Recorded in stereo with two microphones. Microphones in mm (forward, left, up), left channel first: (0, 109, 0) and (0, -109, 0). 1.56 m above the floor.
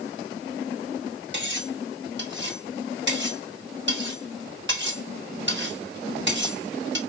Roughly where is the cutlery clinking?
Right.